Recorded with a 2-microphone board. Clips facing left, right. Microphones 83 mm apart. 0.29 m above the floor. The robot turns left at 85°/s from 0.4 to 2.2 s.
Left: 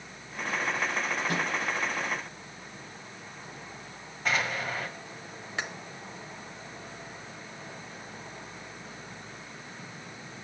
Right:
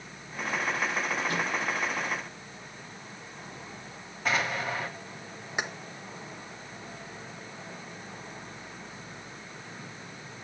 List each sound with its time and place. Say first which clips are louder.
1.3 s a microwave: even; 55° left (ahead or behind), 5 m; by 1.5 s 70° left (ahead or behind), 5 m
4.2 s an explosion: right 1 dB; centre (ahead or behind), 1.8 m
5.6 s keys jangling: right 2 dB; 15° right (ahead or behind), 0.9 m